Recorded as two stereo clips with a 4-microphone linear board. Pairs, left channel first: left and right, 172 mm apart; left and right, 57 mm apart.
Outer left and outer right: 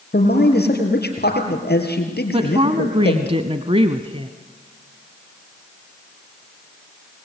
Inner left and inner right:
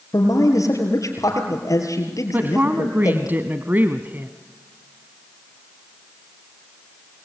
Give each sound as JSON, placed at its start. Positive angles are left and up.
{"t": 0.1, "sound": "a man speaking", "side_deg": 70, "distance_m": 5.0}
{"t": 2.3, "sound": "a woman speaking", "side_deg": -35, "distance_m": 1.2}